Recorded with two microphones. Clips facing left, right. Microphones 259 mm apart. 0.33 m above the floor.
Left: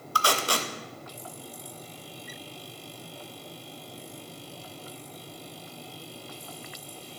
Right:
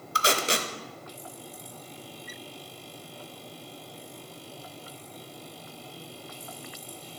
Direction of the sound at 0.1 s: 20° right (ahead or behind).